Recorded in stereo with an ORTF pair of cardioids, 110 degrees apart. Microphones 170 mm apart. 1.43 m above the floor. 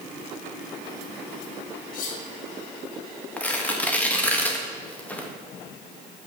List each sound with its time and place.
1.9 s cutlery clinking: 55° left, 2.5 m
3.4 s tearing paper: 10° left, 1.9 m